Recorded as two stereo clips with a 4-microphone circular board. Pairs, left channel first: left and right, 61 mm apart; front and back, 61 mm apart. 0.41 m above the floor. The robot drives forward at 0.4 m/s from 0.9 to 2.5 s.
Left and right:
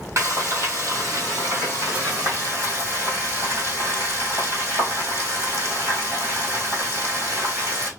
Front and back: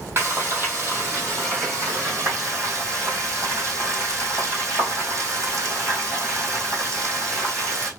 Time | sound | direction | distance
0.2 | frying | 130° right | 2 m